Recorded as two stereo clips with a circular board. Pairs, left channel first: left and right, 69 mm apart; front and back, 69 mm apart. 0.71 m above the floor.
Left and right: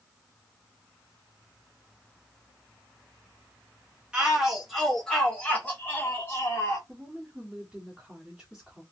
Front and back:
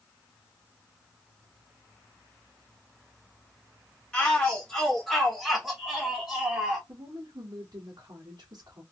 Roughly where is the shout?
Ahead right.